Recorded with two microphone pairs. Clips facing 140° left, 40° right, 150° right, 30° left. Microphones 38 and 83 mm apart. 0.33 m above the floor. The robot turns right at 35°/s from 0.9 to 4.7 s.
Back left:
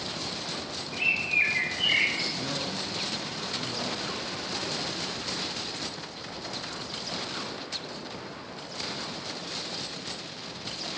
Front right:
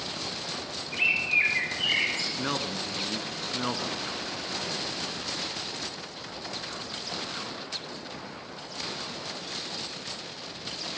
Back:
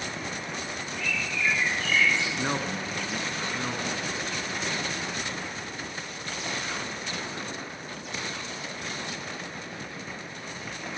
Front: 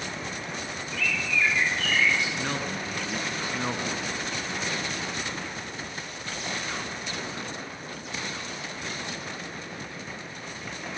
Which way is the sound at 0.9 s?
25° left.